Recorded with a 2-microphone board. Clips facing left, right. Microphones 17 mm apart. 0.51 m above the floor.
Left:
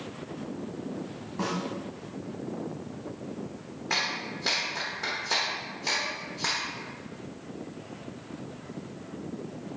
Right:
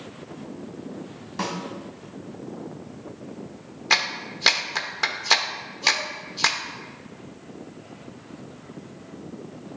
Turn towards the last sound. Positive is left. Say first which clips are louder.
# right 6 dB
turn(degrees=-55)  # may be behind; listen again after turning